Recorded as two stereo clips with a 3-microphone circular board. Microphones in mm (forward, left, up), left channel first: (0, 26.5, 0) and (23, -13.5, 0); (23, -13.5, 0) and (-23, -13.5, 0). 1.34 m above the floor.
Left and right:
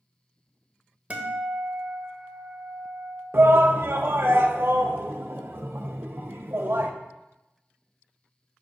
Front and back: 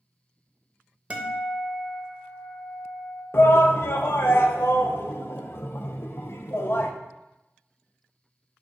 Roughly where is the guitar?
Behind right.